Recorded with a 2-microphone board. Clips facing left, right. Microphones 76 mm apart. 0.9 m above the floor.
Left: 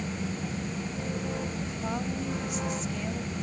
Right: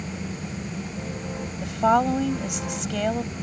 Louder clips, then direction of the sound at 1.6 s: Right 13 dB; 80° right.